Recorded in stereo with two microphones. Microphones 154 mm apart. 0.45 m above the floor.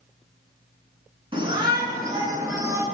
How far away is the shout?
About 4.5 m.